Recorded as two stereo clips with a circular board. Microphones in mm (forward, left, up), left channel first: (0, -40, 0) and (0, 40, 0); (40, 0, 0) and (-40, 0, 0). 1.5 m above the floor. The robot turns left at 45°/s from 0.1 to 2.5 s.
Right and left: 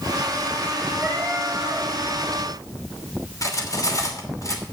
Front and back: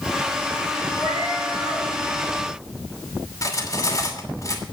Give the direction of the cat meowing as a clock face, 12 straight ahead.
12 o'clock.